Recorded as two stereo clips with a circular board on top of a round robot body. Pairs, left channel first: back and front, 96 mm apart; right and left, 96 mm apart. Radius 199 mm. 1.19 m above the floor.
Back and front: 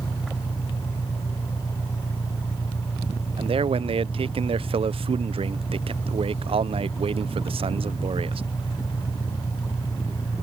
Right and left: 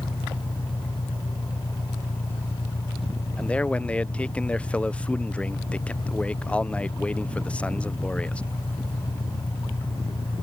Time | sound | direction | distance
0.0 | an engine running | 115° right | ?
3.4 | a man speaking | 10° right | ?